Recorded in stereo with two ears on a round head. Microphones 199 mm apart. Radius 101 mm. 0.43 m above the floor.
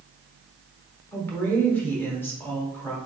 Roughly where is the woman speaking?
Centre.